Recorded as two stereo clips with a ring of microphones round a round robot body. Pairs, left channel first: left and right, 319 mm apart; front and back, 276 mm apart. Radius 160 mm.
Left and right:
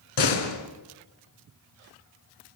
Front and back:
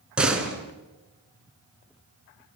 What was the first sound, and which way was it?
A door slam, 95° left.